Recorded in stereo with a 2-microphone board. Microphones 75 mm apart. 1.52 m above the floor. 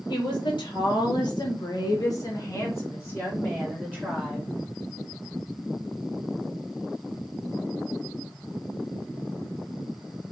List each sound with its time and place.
0.1 s a woman speaking: 75° left (ahead or behind), 1.6 m; by 4.5 s 5° left (ahead or behind), 1.7 m